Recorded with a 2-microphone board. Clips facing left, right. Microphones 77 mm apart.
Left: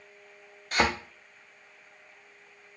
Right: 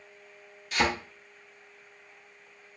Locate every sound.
0.7 s a thud: 45° left (ahead or behind), 0.8 m